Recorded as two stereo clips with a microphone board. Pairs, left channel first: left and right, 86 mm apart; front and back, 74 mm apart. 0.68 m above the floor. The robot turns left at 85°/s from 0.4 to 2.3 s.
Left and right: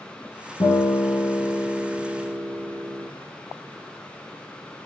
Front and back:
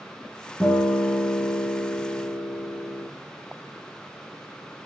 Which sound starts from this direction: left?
A guitar, at 0.6 s.